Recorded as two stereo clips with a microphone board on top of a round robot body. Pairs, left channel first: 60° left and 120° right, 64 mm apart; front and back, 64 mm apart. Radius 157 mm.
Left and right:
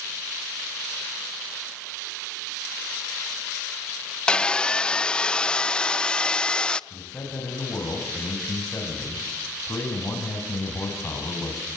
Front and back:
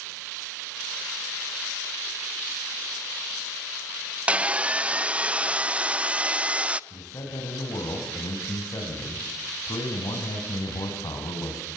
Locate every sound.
4.3 s sawing: 125° left, 0.7 m
6.9 s a man speaking: 5° left, 3.5 m